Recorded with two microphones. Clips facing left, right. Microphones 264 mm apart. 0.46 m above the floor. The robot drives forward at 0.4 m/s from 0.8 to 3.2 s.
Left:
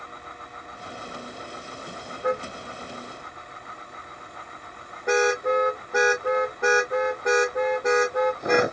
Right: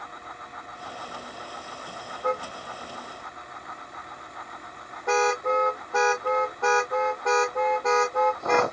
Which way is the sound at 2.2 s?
15° left (ahead or behind).